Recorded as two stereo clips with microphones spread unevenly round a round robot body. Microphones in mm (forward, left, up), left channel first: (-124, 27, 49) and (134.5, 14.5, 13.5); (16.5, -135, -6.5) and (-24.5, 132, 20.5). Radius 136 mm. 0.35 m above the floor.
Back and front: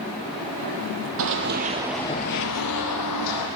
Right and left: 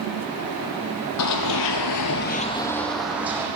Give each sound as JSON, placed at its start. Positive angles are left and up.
{"t": 1.2, "sound": "running footsteps", "azimuth_deg": -45, "distance_m": 1.0}